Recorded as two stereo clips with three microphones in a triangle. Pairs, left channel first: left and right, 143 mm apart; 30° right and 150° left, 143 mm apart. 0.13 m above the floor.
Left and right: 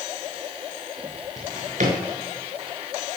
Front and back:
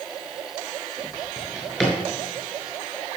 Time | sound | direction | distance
1.4 | a drawer | 115° right | 5.5 m